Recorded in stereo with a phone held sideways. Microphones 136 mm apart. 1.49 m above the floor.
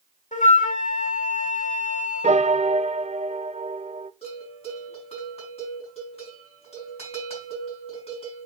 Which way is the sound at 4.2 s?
50° left (ahead or behind).